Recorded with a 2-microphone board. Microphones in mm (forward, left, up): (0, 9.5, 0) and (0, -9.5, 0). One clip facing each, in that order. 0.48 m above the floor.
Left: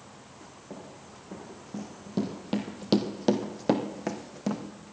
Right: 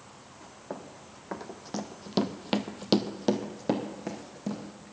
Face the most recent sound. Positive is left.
turn(degrees=35)  # may be behind; listen again after turning